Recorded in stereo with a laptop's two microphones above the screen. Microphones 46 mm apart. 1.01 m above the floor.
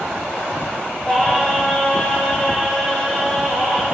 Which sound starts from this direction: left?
Singing, at 1.1 s.